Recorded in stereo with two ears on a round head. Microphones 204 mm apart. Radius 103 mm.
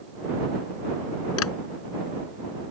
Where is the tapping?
70° left (ahead or behind).